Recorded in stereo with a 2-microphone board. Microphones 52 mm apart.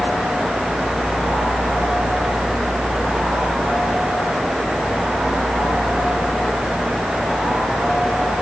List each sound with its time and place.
Only background noise.